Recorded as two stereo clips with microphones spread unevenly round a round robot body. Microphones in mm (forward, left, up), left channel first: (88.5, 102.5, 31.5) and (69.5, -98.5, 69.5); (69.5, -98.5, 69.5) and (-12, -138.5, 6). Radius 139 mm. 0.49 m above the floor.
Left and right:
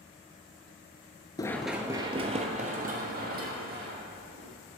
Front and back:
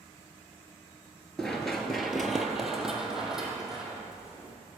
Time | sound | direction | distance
1.4 | running footsteps | 10° left | 0.5 m